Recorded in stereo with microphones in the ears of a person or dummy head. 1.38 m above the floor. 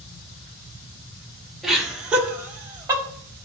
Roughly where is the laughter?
Centre.